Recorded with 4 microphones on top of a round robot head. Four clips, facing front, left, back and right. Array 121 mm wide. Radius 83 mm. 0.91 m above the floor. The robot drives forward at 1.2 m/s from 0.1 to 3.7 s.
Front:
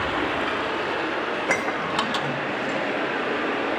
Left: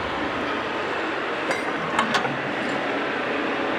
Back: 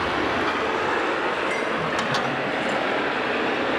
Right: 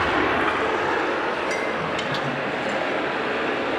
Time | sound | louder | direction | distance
0.0 | running water | right 5 dB, back 2 dB | 100° right | 1.6 m
1.3 | dishes clattering | right 1 dB, even | 25° left | 1.1 m